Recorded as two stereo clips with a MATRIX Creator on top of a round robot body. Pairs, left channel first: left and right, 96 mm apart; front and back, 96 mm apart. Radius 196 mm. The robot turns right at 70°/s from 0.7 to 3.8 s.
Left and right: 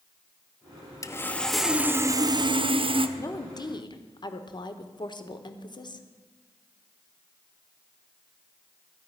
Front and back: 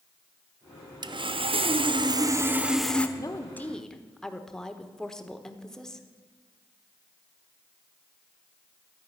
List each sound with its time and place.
1.0 s sawing: 140° left, 0.9 m; by 3.1 s 75° right, 0.9 m
3.2 s a woman speaking: 40° left, 1.4 m; by 6.1 s 80° left, 1.4 m